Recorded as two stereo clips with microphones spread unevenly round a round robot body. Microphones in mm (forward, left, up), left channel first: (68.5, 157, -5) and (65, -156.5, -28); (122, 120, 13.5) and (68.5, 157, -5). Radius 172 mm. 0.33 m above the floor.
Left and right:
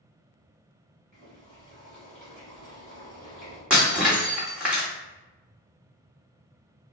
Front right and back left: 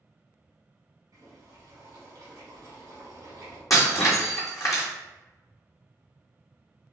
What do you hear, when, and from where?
1.1 s boiling: 175° left, 1.5 m
3.7 s breaking glass: 5° right, 1.6 m